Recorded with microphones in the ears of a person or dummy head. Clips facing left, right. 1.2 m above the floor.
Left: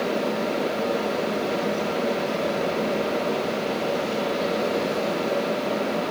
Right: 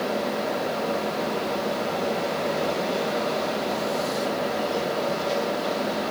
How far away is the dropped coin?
No dropped coin in this recording.